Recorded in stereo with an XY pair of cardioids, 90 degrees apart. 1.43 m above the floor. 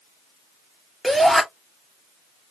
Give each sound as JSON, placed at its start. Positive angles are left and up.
{"t": 1.0, "sound": "a shout", "azimuth_deg": -10, "distance_m": 3.0}